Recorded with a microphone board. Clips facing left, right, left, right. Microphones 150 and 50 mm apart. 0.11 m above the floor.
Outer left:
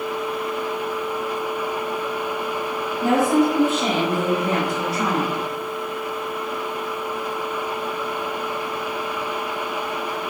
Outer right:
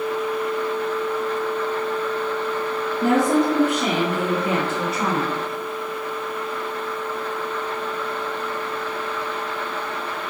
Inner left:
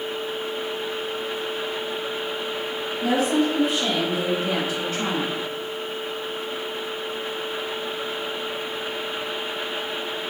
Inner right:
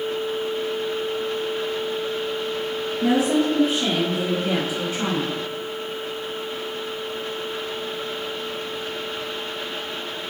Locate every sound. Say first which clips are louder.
3.0 s a woman speaking: outer left 1 dB, inner right 1 dB; 50° right (ahead or behind), 1.7 m; by 5.3 s 10° right (ahead or behind), 1.1 m